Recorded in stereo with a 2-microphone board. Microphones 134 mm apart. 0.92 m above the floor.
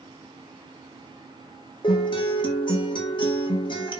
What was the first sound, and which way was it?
A guitar, 35° left (ahead or behind).